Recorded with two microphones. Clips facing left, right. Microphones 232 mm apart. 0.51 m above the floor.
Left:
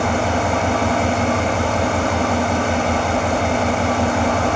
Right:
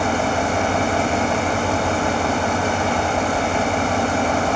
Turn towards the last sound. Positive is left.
turn(degrees=70)  # may be behind; listen again after turning